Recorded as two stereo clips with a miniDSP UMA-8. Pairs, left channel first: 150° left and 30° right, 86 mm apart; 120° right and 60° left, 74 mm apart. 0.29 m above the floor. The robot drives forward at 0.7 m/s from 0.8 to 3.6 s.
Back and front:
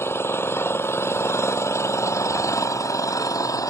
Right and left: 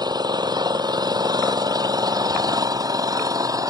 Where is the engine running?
90° left; by 3.7 s 100° left.